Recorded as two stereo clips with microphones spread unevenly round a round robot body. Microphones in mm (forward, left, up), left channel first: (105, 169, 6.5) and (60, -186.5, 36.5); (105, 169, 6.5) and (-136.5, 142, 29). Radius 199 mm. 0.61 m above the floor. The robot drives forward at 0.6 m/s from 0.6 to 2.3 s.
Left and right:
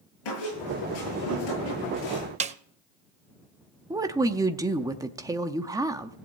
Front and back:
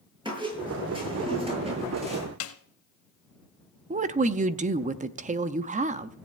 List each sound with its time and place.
0.2 s a squeak: 115° left, 8.5 m; by 2.3 s 120° left, 9 m
2.4 s a snare drum: 30° right, 0.5 m
3.9 s a woman speaking: 175° right, 0.5 m